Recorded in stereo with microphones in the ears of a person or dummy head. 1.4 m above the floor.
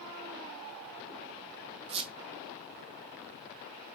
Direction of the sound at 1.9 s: 25° right (ahead or behind).